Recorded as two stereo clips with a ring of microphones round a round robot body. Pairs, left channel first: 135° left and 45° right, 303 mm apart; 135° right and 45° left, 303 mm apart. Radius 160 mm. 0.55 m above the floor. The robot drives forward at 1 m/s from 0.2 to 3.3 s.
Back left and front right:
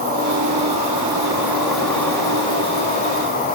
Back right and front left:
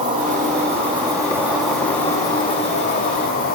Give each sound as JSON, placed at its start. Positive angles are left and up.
{"t": 0.0, "sound": "an insect", "azimuth_deg": 0, "distance_m": 2.5}